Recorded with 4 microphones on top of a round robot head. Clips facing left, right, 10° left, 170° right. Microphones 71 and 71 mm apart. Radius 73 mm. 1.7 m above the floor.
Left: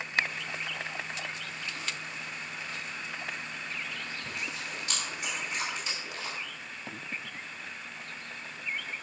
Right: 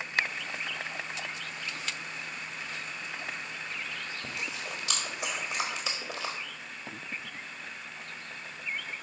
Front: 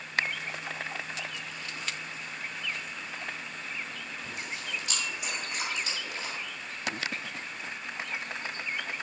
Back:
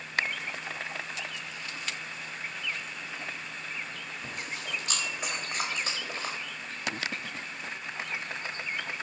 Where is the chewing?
110° right, 1.6 m.